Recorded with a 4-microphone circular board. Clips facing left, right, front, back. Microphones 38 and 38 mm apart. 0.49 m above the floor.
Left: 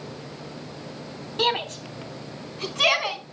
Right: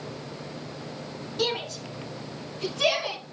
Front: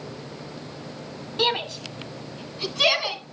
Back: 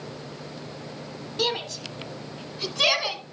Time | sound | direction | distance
1.4 | a shout | 70° left | 1.0 m